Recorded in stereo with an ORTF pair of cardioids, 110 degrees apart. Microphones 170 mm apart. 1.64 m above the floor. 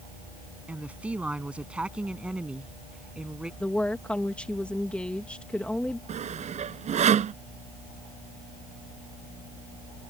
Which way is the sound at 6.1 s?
45° right.